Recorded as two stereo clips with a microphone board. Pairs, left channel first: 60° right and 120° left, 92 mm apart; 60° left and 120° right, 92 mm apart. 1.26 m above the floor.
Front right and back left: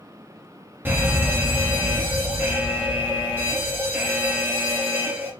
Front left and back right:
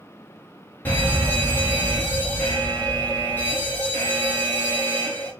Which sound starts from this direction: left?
A fire alarm, at 0.8 s.